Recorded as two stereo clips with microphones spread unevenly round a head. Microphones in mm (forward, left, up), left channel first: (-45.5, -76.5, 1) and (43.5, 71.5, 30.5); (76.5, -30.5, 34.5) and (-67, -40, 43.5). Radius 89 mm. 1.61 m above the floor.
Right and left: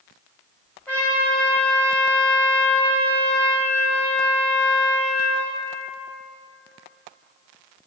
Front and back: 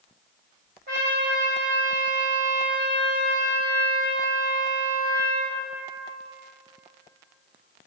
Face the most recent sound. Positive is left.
turn(degrees=150)